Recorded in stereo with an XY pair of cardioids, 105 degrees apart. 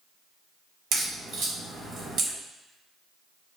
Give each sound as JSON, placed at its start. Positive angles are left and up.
{"t": 0.9, "sound": "a crack", "azimuth_deg": -65, "distance_m": 1.3}